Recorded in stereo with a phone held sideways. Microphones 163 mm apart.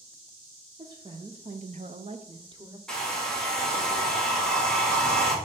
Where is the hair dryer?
5° left (ahead or behind), 1.8 m.